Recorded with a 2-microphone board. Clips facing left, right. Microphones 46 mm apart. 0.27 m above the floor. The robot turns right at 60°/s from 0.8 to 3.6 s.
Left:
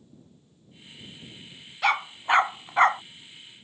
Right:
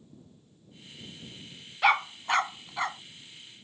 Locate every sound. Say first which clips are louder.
1.8 s a dog barking: even; 5° right (ahead or behind); by 3.0 s 60° left (ahead or behind)